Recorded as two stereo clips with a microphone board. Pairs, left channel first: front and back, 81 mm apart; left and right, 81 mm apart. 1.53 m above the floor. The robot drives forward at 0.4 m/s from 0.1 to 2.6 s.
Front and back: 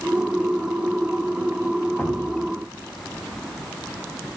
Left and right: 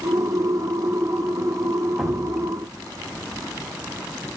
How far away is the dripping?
About 0.9 m.